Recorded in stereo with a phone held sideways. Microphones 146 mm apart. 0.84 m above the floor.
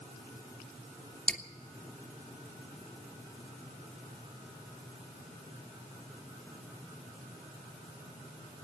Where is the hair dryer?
I don't hear a hair dryer.